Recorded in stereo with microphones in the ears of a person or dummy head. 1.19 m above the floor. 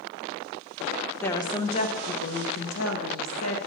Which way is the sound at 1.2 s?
5° left (ahead or behind).